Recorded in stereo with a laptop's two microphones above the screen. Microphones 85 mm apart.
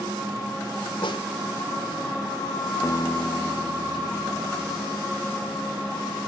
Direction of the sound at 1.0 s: 75° left (ahead or behind).